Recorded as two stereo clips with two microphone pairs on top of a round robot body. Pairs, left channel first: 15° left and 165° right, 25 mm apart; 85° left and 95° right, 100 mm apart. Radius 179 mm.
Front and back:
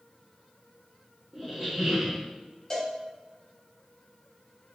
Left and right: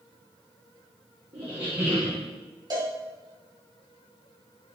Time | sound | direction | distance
1.3 | a squeak | 100° right | 0.9 m
2.7 | a cowbell | 45° right | 1.4 m